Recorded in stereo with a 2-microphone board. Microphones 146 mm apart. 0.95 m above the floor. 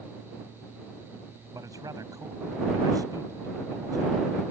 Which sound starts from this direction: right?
A man speaking, at 1.5 s.